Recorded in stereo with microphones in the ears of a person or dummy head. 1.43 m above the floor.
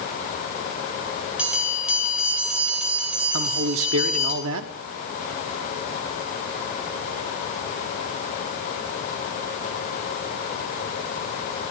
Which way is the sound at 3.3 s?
70° right (ahead or behind).